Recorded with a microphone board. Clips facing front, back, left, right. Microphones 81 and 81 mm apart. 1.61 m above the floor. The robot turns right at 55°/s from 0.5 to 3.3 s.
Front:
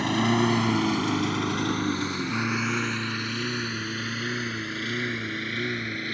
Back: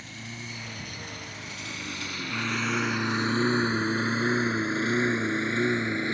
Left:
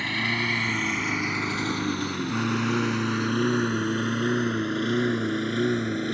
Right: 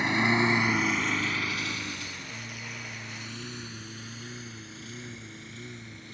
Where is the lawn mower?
20° right; by 6.2 s 110° left.